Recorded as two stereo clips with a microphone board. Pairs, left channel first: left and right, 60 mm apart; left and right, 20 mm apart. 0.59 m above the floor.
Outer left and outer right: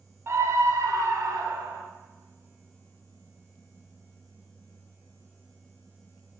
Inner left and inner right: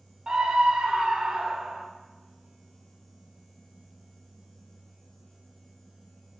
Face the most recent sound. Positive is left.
turn(degrees=-70)  # may be behind; listen again after turning